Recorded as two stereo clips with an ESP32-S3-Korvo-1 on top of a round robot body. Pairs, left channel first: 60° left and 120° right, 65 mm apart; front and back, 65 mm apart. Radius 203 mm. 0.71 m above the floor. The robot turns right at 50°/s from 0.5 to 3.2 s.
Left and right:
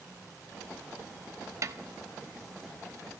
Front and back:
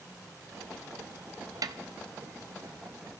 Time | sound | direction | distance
1.6 | a snare drum | 160° right | 1.0 m